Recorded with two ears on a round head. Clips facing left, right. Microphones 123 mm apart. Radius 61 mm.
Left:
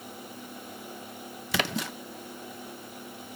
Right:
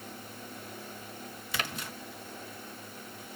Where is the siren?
No siren in this recording.